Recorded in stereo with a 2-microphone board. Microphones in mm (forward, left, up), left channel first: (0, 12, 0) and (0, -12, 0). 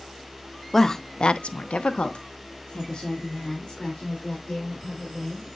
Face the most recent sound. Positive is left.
turn(degrees=30)  # may be behind; listen again after turning